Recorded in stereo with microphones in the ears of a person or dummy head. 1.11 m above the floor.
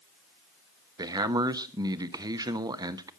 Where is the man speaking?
20° right (ahead or behind), 0.9 m.